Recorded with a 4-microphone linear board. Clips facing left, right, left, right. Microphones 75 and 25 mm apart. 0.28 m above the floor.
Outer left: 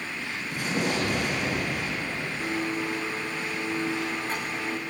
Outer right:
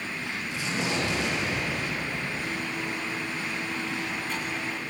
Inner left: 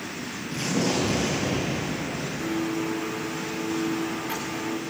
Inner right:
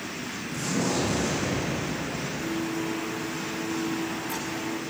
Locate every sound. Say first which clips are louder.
0.5 s an explosion: outer left 3 dB, inner left 2 dB; 50° left (ahead or behind), 5.5 m
2.4 s a blender: outer left 3 dB, inner left 3 dB; 35° left (ahead or behind), 6.5 m